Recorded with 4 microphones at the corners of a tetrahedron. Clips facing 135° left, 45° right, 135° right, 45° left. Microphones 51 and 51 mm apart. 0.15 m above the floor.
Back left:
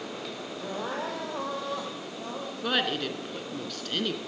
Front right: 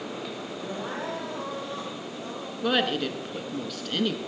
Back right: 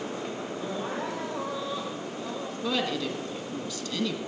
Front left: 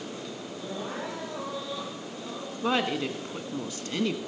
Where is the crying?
140° left, 3.5 m.